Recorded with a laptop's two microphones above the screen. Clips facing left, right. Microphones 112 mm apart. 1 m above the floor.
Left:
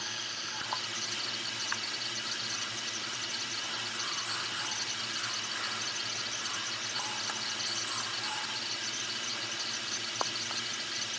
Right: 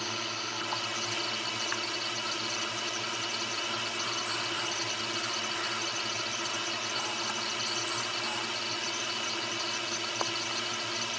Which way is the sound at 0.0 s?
70° right (ahead or behind).